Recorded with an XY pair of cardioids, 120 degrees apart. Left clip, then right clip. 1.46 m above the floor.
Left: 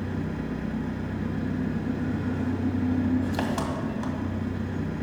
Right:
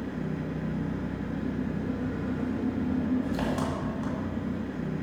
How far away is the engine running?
About 1.8 m.